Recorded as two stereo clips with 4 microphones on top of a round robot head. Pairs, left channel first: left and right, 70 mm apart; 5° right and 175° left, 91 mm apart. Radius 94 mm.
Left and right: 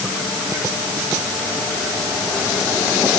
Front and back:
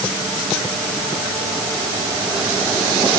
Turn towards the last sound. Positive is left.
No sound to turn to.